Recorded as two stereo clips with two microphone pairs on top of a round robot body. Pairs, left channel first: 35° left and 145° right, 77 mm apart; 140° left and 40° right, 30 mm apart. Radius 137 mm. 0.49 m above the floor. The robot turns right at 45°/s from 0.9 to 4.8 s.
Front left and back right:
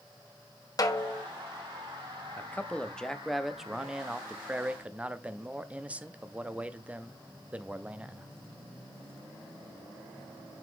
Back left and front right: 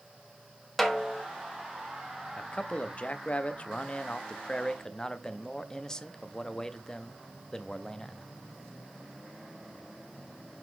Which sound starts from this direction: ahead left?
A snare drum, at 0.8 s.